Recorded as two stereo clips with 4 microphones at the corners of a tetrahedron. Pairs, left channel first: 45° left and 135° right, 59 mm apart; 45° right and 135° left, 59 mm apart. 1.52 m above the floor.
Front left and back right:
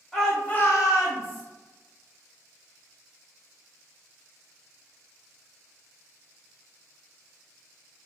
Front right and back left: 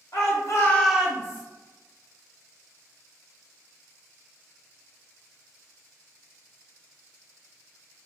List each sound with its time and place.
0.1 s a shout: 40° right, 1.1 m; by 1.4 s 90° left, 1.1 m